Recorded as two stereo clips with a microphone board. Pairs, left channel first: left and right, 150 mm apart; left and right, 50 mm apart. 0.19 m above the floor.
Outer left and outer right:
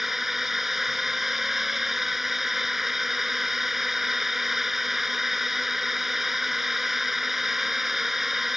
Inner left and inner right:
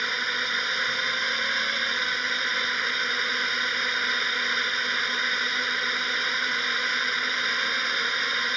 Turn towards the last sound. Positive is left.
turn(degrees=0)  # may be behind; listen again after turning